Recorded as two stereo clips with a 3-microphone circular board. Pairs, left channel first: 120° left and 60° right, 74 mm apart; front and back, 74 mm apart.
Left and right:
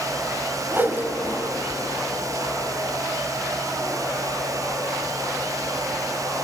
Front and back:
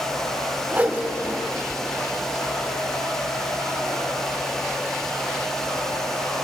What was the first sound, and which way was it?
A whoosh, 115° right.